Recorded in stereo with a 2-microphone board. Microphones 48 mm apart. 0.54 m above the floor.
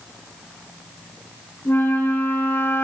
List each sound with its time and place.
1.6 s a flute: 45° left (ahead or behind), 4 m